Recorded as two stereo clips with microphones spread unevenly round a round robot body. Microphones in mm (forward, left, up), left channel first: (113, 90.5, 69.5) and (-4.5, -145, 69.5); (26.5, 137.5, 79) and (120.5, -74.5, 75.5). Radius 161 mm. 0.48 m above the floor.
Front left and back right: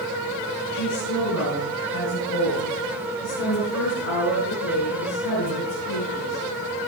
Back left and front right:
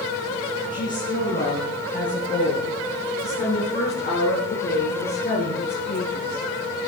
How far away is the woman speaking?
About 5.5 m.